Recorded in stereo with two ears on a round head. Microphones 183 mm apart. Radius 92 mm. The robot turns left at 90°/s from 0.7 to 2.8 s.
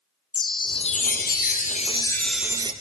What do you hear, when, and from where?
0.3 s a chime: 145° left, 0.7 m; by 2.7 s 35° right, 0.7 m